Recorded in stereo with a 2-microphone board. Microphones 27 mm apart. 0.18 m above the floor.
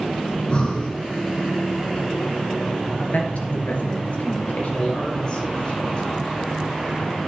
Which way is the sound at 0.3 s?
35° left (ahead or behind).